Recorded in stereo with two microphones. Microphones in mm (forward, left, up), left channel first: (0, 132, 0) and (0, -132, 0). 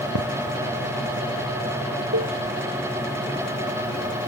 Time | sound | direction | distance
0.1 | a thud | 75° right (ahead or behind) | ?
2.1 | a cowbell | 65° right (ahead or behind) | ?